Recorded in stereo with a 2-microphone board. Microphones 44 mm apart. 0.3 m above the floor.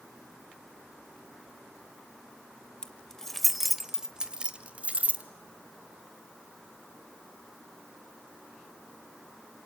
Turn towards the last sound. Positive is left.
turn(degrees=-40)  # may be behind; listen again after turning